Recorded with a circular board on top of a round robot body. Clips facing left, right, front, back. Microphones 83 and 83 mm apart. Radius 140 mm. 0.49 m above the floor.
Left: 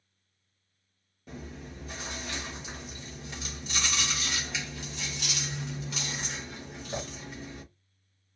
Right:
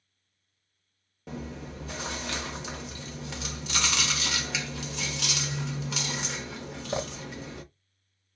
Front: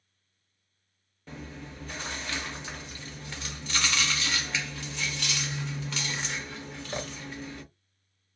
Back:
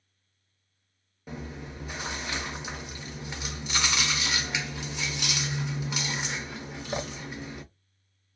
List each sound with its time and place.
1.3 s chewing: 105° right, 0.5 m